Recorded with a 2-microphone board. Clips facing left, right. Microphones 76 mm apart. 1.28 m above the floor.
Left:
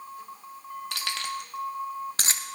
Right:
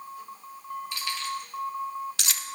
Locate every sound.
0.9 s keys jangling: 70° left (ahead or behind), 1.6 m; by 2.5 s 25° left (ahead or behind), 0.8 m